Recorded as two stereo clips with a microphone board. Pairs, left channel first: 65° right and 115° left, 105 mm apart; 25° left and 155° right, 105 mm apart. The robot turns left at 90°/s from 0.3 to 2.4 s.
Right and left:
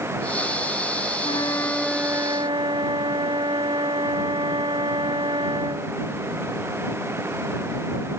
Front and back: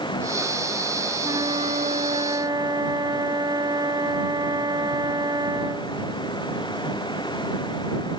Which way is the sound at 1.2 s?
100° right.